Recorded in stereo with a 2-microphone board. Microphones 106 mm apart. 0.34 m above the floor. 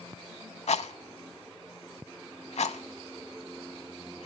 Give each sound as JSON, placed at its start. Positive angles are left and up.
{"t": 0.7, "sound": "a rattle", "side_deg": 85, "distance_m": 0.6}